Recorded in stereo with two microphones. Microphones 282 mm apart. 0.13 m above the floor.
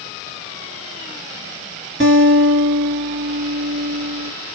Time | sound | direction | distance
2.0 | a guitar | 40° right (ahead or behind) | 2 m